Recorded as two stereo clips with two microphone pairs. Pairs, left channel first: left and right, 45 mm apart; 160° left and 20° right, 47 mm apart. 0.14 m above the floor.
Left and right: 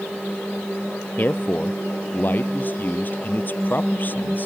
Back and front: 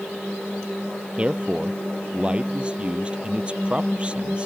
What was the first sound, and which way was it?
A man speaking, 45° left.